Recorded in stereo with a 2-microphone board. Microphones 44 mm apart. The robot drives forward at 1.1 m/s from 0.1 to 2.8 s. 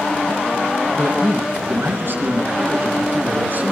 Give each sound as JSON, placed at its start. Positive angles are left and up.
{"t": 0.9, "sound": "a man speaking", "side_deg": -60, "distance_m": 3.0}